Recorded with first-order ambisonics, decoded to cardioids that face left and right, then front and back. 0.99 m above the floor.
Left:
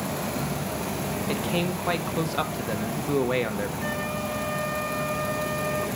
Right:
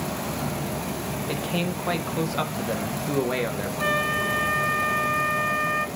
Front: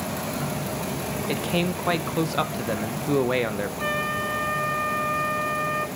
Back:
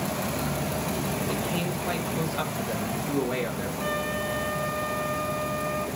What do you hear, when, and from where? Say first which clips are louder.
1.3 s a man speaking: left 1 dB, front 3 dB; 5° left, 0.8 m
3.8 s a flute: right 6 dB, front 3 dB; 60° right, 2.5 m